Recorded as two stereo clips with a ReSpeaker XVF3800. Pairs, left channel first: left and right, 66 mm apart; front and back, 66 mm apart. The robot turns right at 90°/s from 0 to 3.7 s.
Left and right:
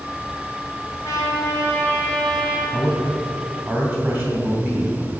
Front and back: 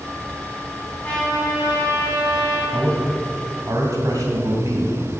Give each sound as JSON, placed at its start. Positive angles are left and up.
{"t": 1.0, "sound": "a trumpet", "azimuth_deg": 65, "distance_m": 3.0}
{"t": 2.7, "sound": "a man speaking", "azimuth_deg": 130, "distance_m": 2.5}